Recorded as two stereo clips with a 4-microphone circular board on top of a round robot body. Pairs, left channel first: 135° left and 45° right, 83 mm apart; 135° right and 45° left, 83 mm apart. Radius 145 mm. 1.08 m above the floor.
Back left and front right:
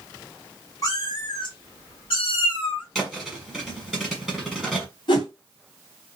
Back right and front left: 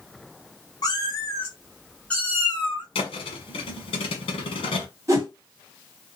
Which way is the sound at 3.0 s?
140° right.